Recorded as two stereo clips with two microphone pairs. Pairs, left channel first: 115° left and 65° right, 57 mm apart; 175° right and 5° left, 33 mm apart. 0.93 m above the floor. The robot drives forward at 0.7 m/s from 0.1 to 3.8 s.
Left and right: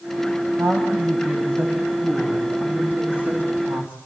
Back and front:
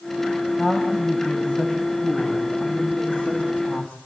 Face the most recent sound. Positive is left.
turn(degrees=-130)